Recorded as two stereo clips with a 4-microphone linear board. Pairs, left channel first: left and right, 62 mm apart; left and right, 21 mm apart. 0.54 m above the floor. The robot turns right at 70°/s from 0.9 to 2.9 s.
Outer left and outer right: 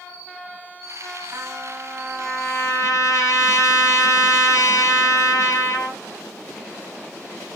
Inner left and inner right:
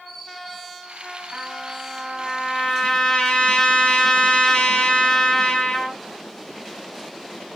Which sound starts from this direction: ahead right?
A trumpet, at 1.3 s.